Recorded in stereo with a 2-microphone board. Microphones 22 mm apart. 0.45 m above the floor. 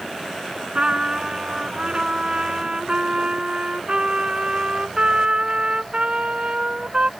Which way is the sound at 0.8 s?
45° right (ahead or behind).